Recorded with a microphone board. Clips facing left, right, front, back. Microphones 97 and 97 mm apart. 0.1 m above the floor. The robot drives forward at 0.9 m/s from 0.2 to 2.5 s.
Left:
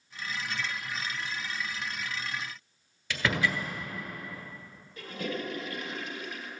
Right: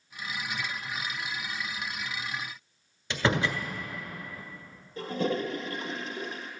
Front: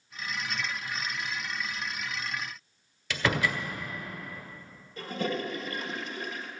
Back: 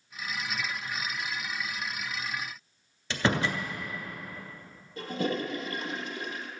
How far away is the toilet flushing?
About 1.7 m.